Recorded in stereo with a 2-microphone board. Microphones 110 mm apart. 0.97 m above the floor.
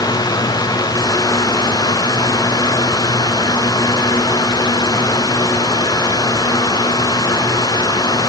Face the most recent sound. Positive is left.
No sound to turn to.